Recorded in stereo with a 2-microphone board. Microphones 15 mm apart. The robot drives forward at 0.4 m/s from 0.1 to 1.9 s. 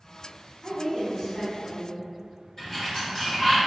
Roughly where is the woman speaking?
Left.